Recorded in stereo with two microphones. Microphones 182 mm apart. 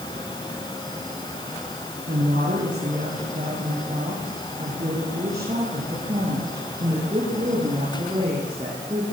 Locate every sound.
2.1 s a woman speaking: 50° right (ahead or behind), 9 m; by 9.0 s 25° right (ahead or behind), 10 m